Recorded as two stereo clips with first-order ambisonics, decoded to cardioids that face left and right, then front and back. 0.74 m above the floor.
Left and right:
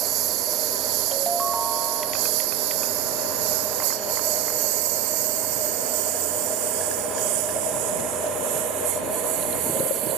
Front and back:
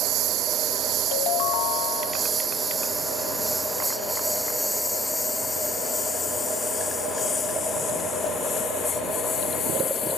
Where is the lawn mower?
130° right; by 10.2 s 60° right.